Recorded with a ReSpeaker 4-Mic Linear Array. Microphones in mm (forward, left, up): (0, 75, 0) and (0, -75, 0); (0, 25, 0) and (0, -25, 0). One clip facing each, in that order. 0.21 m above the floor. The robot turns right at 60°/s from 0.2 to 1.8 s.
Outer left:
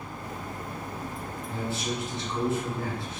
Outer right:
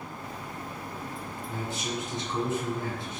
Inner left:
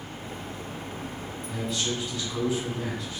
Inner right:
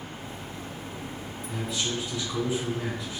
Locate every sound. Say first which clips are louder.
1.5 s a man speaking: outer left 2 dB, inner left 1 dB; 10° right (ahead or behind), 1.1 m; by 3.2 s 20° right (ahead or behind), 1.1 m